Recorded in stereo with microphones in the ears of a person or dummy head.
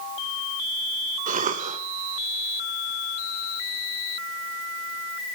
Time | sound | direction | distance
1.3 | a cough | 40° right (ahead or behind) | 1.9 m